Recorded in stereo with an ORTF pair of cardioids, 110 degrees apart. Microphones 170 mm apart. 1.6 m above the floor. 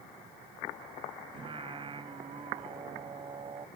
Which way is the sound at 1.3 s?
30° right.